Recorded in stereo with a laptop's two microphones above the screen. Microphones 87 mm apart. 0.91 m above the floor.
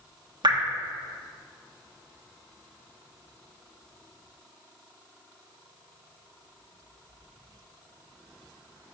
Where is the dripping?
65° right (ahead or behind), 1.2 m.